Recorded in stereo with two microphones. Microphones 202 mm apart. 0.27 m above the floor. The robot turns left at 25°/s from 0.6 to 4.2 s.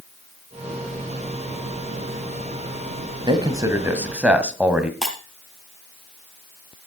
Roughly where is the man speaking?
Right.